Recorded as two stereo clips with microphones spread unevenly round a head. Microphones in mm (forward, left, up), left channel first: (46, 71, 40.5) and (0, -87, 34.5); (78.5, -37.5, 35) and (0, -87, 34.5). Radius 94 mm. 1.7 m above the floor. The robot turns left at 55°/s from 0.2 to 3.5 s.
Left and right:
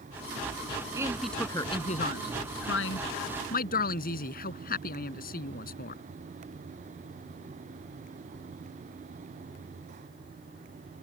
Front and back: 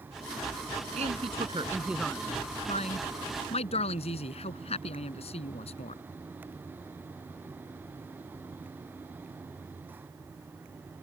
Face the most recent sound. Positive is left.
turn(degrees=40)